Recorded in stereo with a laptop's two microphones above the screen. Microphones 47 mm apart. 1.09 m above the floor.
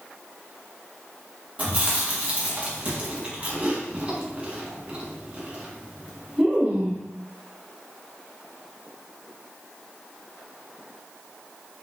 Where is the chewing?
35° right (ahead or behind), 1.0 m.